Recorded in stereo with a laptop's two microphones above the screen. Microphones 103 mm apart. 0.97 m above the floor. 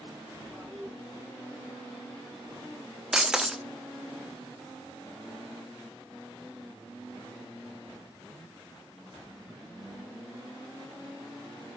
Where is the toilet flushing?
5° left (ahead or behind), 3.5 m.